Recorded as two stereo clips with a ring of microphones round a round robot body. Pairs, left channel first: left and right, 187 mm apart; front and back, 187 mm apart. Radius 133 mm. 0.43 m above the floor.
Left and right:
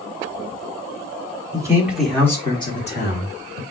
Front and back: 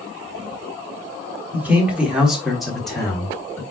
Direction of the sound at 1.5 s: 115° right.